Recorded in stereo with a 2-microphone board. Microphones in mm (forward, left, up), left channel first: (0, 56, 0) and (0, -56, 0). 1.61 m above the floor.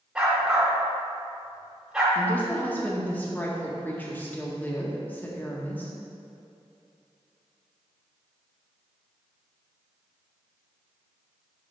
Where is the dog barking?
5° right (ahead or behind), 2 m.